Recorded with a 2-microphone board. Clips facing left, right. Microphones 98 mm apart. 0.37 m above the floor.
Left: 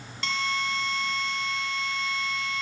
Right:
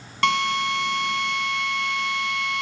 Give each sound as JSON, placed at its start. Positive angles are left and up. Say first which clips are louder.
{"t": 0.2, "sound": "a drill", "louder": "right 8 dB", "side_deg": -65, "distance_m": 3.5}